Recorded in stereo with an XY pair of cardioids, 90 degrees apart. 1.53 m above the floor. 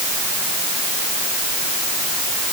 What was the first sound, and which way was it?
Only background noise.